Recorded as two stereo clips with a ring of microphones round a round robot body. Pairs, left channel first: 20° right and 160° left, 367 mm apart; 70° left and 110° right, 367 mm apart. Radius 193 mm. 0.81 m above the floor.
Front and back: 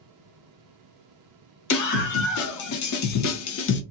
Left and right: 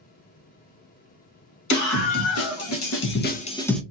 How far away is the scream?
About 1.7 m.